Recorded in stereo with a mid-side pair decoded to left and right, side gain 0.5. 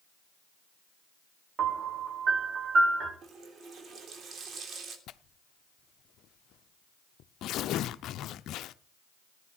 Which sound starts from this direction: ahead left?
Tearing paper, at 5.1 s.